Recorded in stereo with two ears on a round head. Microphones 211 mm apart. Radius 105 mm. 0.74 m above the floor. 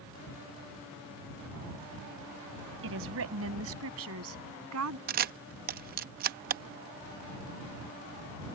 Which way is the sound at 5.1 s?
40° right (ahead or behind).